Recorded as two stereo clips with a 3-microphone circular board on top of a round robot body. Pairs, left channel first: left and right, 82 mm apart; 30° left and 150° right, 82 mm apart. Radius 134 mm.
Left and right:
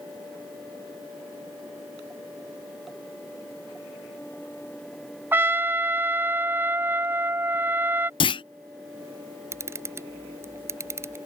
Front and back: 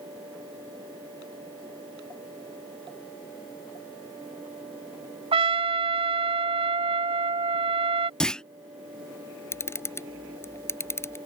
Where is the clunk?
110° left.